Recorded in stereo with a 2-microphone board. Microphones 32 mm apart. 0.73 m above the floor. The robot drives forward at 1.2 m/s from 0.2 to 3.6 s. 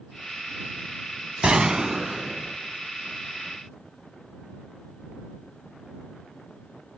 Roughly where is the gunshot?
Right.